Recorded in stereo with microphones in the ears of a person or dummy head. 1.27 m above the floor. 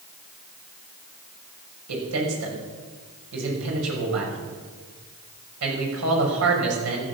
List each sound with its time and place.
1.9 s a man speaking: 80° right, 6 m